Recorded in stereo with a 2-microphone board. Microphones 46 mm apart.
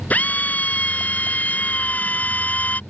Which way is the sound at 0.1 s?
35° left (ahead or behind).